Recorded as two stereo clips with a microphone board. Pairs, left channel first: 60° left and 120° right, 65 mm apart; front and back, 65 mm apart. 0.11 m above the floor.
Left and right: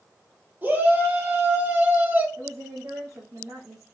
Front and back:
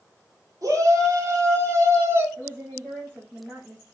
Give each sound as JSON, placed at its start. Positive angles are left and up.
{"t": 0.6, "sound": "a shout", "azimuth_deg": -175, "distance_m": 2.5}
{"t": 2.4, "sound": "a woman speaking", "azimuth_deg": -130, "distance_m": 4.0}